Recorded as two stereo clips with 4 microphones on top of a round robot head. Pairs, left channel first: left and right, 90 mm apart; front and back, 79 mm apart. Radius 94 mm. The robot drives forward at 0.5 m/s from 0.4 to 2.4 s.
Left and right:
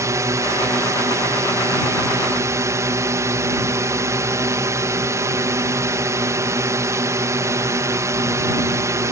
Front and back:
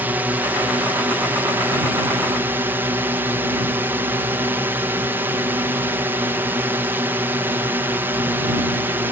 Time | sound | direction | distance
0.0 | a drone | 125° right | ?